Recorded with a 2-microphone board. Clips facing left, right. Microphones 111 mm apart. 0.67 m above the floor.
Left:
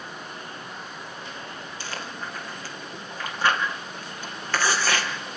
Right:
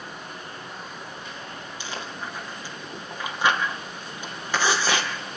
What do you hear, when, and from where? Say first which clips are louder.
1.8 s chewing: right 1 dB; 15° right (ahead or behind), 4 m